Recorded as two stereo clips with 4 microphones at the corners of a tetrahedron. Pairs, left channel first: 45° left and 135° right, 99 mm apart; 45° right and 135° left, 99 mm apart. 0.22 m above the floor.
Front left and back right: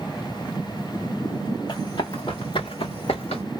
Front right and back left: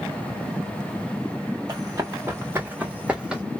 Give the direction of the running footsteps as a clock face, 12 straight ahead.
9 o'clock.